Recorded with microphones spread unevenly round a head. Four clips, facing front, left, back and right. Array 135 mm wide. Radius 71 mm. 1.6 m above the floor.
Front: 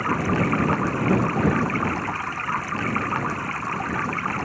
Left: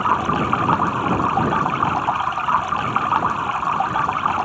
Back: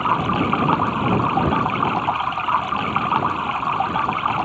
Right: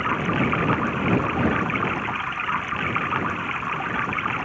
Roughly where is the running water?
Behind left.